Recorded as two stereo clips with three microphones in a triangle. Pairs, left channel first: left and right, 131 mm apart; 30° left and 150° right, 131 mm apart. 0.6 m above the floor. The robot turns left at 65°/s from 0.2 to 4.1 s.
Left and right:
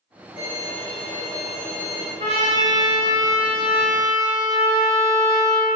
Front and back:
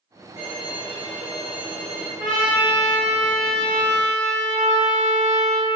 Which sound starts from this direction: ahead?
A violin, at 0.4 s.